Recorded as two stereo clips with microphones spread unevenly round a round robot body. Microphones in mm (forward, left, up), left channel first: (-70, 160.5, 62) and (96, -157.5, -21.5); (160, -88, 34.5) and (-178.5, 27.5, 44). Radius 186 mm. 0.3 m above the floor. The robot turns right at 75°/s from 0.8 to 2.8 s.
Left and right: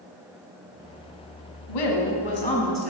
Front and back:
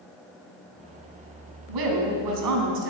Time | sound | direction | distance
1.7 | a woman speaking | 135° left | 3.5 m